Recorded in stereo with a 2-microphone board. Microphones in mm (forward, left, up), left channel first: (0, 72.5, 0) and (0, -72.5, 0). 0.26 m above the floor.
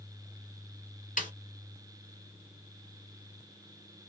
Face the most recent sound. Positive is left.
turn(degrees=65)  # may be behind; listen again after turning